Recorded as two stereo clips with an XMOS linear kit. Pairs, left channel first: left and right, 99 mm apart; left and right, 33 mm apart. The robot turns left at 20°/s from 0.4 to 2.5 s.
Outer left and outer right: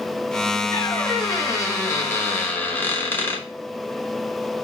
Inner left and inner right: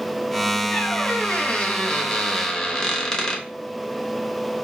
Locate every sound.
0.7 s a squeak: 65° left, 1.0 m; by 3.5 s 25° left, 1.0 m